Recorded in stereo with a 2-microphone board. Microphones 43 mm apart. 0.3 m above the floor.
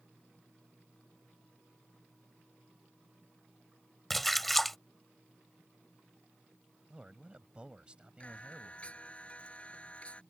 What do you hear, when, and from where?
4.1 s a splash: 5° left (ahead or behind)
6.9 s a man speaking: 25° right (ahead or behind)
8.2 s singing: 30° left (ahead or behind)